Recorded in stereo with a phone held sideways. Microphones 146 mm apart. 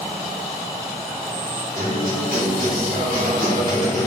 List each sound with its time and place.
1.8 s a guitar: 75° right (ahead or behind), 2.5 m